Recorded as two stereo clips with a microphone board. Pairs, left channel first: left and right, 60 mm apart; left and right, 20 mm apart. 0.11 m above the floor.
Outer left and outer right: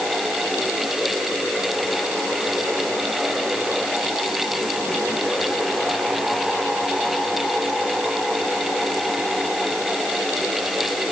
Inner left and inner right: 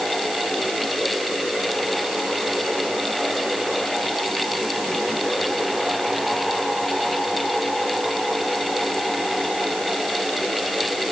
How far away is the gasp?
I don't hear a gasp.